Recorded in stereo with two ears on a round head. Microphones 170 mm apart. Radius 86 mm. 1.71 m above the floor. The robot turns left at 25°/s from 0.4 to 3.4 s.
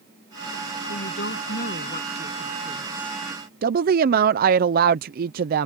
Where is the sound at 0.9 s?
60° left; by 3.1 s 5° left.